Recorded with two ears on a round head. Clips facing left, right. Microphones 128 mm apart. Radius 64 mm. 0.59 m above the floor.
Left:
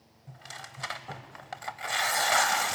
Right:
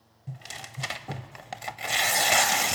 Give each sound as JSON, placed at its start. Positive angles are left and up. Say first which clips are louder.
{"t": 0.3, "sound": "tearing paper", "louder": "right 3 dB", "side_deg": -25, "distance_m": 0.6}